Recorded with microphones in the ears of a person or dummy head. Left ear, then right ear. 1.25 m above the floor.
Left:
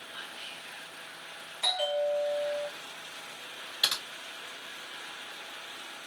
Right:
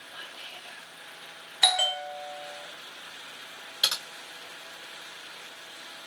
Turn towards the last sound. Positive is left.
turn(degrees=0)  # may be behind; listen again after turning